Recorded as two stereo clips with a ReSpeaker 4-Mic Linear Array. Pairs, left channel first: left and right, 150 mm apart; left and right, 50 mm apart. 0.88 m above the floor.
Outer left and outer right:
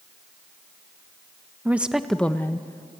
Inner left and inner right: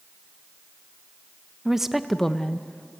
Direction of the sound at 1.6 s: 10° right (ahead or behind).